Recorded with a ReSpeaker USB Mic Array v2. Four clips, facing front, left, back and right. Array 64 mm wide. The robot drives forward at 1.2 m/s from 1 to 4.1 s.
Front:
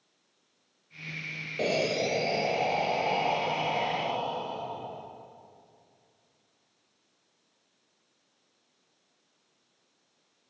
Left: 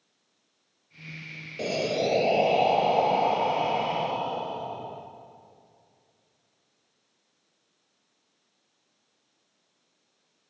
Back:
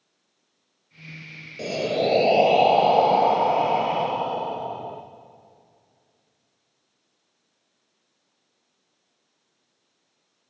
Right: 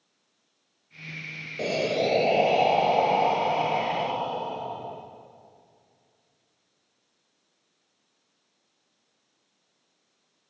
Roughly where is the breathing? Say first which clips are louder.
Right 1 dB, back 4 dB; ahead.